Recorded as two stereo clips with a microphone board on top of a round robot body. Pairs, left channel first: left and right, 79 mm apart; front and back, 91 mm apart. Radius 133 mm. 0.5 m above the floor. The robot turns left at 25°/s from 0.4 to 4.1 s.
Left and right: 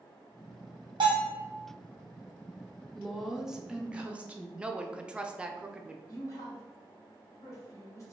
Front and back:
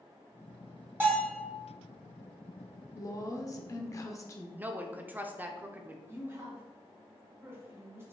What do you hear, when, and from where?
1.0 s a bell: 110° right, 1.8 m; by 1.4 s 120° right, 1.8 m
3.0 s a woman speaking: straight ahead, 0.8 m; by 4.5 s 30° right, 0.8 m
4.6 s a woman speaking: 145° right, 0.7 m
6.1 s a woman speaking: 125° left, 2.0 m